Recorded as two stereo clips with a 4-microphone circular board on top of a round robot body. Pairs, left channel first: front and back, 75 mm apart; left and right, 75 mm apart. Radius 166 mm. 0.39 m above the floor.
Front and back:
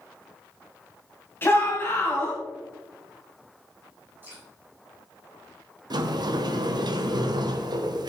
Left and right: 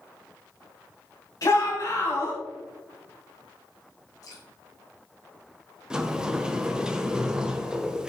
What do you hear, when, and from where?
1.4 s a shout: 55° left, 3 m
4.2 s dripping: 120° left, 6 m
5.9 s a sliding door: 170° right, 0.9 m